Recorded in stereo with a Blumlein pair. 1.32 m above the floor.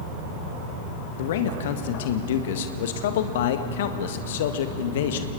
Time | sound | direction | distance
1.2 | a man speaking | 55° left | 1.6 m